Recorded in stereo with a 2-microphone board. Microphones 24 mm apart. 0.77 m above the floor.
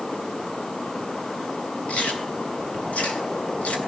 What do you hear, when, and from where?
1.9 s chewing: 80° left, 3 m